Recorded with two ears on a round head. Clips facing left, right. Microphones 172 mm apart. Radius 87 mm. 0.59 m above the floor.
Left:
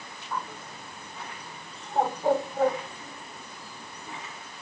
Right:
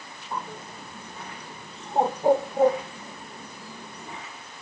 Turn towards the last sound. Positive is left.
turn(degrees=-15)  # may be behind; listen again after turning